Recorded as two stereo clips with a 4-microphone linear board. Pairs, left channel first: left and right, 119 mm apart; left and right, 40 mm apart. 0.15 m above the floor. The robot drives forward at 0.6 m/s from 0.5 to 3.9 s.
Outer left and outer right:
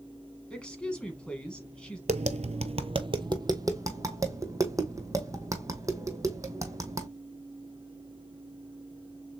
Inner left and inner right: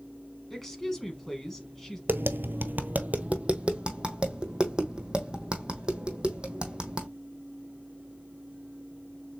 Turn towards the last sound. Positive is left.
turn(degrees=-30)  # may be behind; listen again after turning